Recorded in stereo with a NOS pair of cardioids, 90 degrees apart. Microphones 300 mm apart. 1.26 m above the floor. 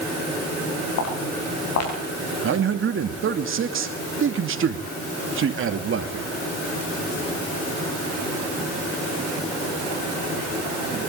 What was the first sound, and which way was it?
Footsteps, 60° left.